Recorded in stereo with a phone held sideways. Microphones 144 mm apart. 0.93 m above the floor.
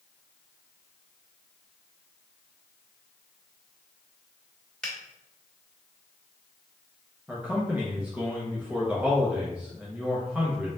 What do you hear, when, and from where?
4.8 s a finger snap: 5° left (ahead or behind), 1.8 m
7.3 s a man speaking: 10° right (ahead or behind), 0.9 m